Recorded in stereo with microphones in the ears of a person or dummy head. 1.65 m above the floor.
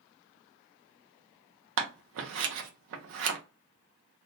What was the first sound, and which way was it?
Scissors, 65° right (ahead or behind).